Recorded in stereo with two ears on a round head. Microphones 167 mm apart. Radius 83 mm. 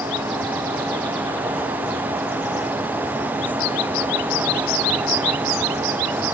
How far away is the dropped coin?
No dropped coin in this recording.